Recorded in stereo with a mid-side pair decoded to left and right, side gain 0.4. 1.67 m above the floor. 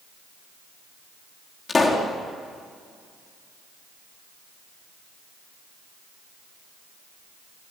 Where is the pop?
35° left, 4.5 m.